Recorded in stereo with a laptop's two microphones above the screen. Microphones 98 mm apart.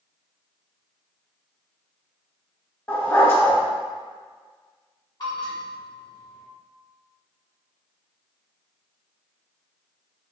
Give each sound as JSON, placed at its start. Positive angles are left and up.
{"t": 2.9, "sound": "a dog barking", "side_deg": 25, "distance_m": 1.1}
{"t": 5.2, "sound": "a bell", "side_deg": 45, "distance_m": 1.3}